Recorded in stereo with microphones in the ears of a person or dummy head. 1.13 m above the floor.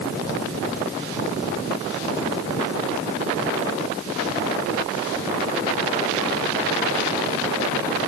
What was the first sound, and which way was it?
Only background noise.